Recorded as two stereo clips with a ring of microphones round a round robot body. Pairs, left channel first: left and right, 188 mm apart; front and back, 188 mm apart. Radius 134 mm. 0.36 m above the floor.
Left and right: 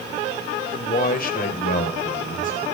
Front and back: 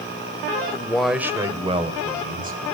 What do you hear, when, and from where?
0.7 s a man speaking: 65° left, 1.7 m; by 2.8 s 145° left, 3 m